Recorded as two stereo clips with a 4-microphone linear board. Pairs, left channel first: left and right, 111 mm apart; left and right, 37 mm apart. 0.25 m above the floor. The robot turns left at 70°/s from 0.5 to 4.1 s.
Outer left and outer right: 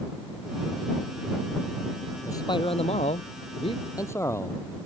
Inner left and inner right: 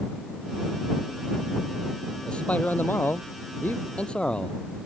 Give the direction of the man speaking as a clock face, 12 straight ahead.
7 o'clock.